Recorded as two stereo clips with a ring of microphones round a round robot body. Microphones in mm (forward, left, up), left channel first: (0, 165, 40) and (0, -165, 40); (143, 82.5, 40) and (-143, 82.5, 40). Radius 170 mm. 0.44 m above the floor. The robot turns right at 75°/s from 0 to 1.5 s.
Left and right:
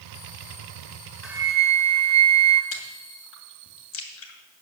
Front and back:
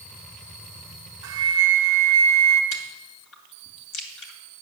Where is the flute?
Straight behind, 1.4 m; by 2.6 s 160° right, 1.4 m.